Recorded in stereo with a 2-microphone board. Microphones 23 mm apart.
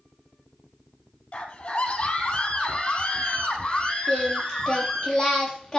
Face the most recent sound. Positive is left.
turn(degrees=20)  # may be behind; listen again after turning